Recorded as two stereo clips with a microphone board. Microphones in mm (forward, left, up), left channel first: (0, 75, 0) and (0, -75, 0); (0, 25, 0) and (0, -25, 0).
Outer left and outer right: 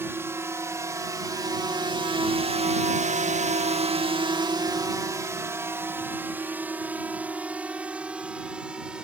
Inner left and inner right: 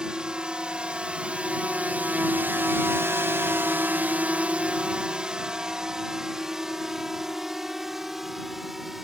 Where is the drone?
15° right (ahead or behind); by 9.0 s 5° right (ahead or behind).